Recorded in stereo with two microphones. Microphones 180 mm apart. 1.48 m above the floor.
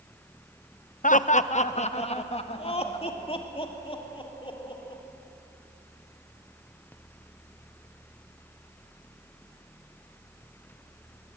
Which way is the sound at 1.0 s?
45° left (ahead or behind).